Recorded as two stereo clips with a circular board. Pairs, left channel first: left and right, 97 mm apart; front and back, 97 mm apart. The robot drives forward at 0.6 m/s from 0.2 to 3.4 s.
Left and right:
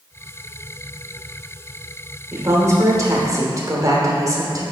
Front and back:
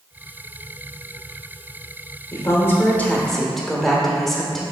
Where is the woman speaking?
45° right, 1.3 m; by 4.6 s 90° right, 1.1 m.